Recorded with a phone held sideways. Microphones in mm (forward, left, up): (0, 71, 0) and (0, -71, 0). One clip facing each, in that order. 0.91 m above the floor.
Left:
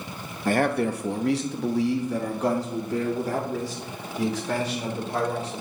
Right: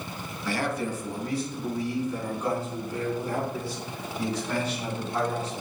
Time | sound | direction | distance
0.5 | a man speaking | 45° left (ahead or behind) | 0.6 m